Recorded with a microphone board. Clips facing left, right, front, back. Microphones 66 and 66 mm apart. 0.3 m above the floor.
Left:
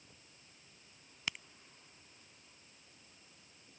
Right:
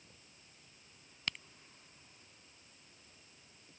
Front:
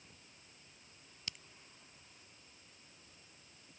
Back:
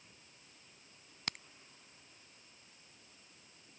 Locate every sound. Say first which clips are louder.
1.3 s a crack: even, back 7 dB; 170° left